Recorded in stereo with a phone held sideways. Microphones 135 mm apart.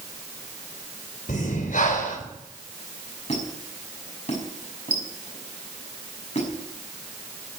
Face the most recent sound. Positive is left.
turn(degrees=55)  # may be behind; listen again after turning